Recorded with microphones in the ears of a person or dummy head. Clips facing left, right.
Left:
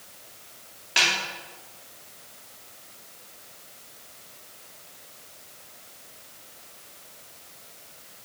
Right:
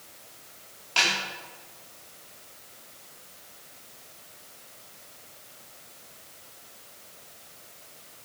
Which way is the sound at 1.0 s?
20° left (ahead or behind).